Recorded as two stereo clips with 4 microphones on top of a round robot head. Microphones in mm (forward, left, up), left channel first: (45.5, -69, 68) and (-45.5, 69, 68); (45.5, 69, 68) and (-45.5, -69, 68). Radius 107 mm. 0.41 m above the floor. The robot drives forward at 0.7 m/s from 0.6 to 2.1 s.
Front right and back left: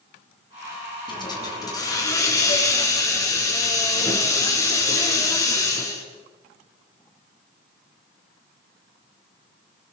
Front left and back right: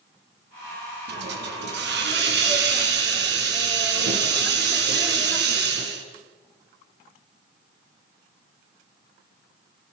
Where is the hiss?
120° right, 4.5 m; by 6.0 s 125° right, 5 m.